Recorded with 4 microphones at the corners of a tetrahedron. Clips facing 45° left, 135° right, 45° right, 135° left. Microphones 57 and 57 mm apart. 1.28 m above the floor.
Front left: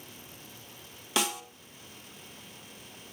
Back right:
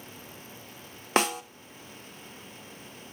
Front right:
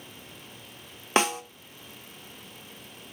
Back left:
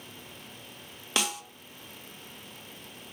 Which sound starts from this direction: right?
A snare drum, at 1.2 s.